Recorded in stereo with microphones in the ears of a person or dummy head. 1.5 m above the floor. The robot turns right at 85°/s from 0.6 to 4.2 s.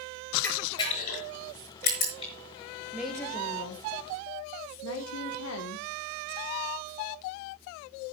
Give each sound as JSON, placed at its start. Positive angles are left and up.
{"t": 0.4, "sound": "a camera shutter", "side_deg": 10, "distance_m": 5.5}
{"t": 2.9, "sound": "a woman speaking", "azimuth_deg": -10, "distance_m": 1.2}